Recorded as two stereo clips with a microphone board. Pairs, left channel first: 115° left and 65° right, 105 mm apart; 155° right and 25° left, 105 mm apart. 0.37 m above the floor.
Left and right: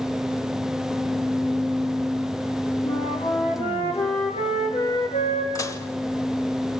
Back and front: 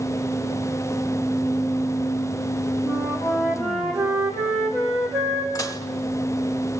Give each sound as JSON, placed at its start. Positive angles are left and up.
{"t": 2.8, "sound": "a flute", "azimuth_deg": 110, "distance_m": 5.0}
{"t": 5.5, "sound": "dishes clattering", "azimuth_deg": 160, "distance_m": 1.0}